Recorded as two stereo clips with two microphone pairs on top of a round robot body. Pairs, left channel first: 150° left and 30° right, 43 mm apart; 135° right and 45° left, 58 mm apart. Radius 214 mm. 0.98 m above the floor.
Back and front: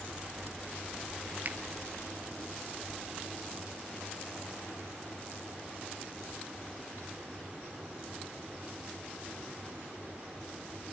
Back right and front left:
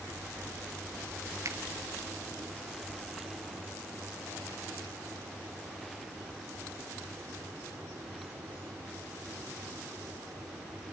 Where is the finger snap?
15° left, 1.1 m.